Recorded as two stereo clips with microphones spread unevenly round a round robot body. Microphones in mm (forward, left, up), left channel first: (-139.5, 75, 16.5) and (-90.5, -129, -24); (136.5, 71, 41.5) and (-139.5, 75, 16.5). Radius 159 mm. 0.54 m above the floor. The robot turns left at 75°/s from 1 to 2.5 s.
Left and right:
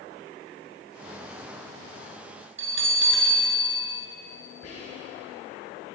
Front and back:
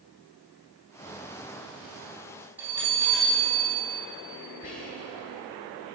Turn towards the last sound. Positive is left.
turn(degrees=60)